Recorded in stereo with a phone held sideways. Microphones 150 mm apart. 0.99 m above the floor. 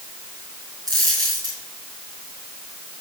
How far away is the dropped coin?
About 9 m.